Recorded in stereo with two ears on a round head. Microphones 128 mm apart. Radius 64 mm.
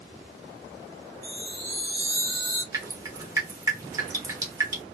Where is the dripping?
20° right (ahead or behind), 1.0 m.